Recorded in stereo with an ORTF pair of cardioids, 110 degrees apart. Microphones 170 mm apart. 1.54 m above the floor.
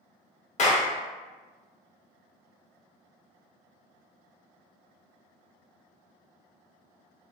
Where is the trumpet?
No trumpet in this recording.